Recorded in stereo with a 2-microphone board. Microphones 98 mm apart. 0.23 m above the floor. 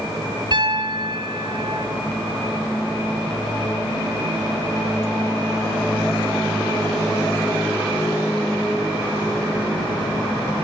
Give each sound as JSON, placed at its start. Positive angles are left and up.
{"t": 0.5, "sound": "a piano", "side_deg": -45, "distance_m": 3.0}